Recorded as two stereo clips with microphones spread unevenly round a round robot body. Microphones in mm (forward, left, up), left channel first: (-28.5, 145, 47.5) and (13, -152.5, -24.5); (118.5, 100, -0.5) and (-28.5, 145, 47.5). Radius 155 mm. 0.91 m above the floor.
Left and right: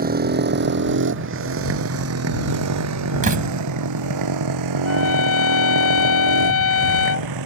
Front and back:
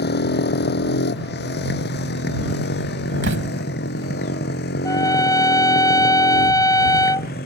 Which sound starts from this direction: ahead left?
A trumpet, at 4.8 s.